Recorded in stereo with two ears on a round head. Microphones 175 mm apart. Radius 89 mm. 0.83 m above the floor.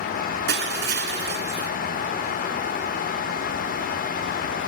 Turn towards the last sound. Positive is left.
turn(degrees=-55)  # may be behind; listen again after turning